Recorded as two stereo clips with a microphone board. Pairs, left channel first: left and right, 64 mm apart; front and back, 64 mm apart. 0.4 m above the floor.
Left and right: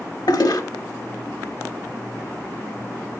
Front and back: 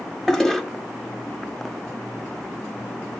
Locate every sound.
0.3 s a toilet flushing: 85° left, 0.5 m